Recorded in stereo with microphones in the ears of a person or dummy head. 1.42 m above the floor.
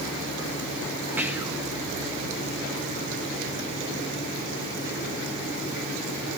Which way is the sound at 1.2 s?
10° right (ahead or behind).